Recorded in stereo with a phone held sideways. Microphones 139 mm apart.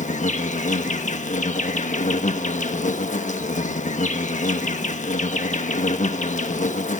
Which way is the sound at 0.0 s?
60° left (ahead or behind).